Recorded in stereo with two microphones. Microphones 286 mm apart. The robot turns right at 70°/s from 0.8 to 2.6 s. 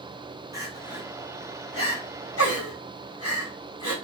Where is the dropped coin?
I don't hear a dropped coin.